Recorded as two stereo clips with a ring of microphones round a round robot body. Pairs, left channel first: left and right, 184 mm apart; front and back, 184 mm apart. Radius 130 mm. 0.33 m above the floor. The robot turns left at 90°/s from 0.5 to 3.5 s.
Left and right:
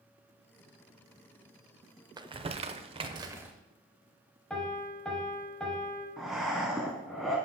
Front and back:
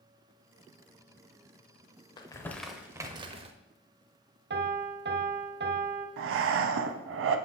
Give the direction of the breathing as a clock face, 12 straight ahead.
6 o'clock.